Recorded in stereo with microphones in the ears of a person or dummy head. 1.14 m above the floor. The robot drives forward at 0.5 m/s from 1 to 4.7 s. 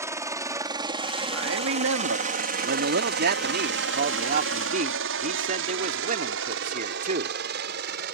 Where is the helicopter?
10° right (ahead or behind); by 8.1 s 55° right (ahead or behind).